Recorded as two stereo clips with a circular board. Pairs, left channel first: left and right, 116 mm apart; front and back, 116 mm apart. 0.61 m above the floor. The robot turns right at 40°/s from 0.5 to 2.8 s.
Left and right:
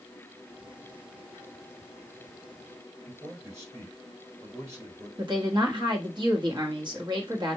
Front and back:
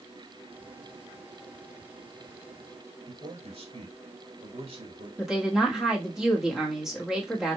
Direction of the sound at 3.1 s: 150° right.